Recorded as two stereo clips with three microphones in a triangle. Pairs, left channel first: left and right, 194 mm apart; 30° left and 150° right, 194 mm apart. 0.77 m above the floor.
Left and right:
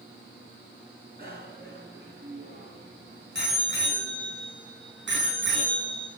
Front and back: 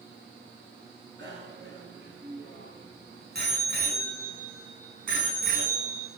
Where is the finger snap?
I don't hear a finger snap.